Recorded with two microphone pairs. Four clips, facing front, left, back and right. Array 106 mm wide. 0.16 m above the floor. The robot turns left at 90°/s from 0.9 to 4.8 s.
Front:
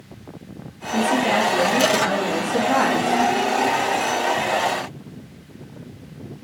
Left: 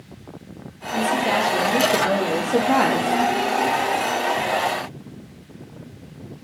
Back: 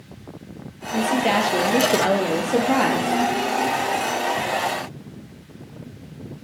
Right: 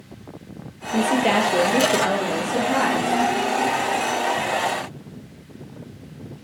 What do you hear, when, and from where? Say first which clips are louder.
0.9 s a woman speaking: right 2 dB, front 1 dB; 75° right, 4 m; by 3.2 s 80° left, 4 m